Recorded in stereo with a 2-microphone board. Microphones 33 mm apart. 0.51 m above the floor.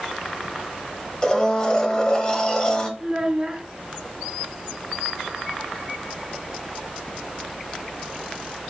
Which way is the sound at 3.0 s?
25° right (ahead or behind).